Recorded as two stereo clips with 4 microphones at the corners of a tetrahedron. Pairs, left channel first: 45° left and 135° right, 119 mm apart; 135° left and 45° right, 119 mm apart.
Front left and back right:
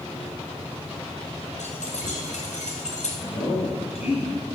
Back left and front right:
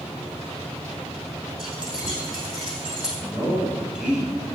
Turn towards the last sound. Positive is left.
turn(degrees=35)